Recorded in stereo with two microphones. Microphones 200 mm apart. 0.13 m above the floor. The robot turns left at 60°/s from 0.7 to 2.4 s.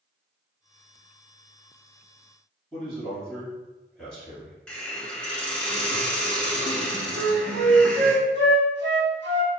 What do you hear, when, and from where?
2.7 s a man speaking: 5° left (ahead or behind), 1.6 m
4.7 s a hiss: 5° left (ahead or behind), 0.7 m
7.1 s a flute: 65° right (ahead or behind), 0.9 m